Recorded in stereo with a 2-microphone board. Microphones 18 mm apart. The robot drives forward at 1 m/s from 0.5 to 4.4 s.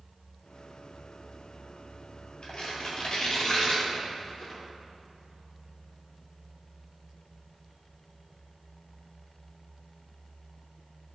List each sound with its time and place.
2.4 s tearing paper: 55° left (ahead or behind), 2.5 m; by 4.6 s 35° left (ahead or behind), 4 m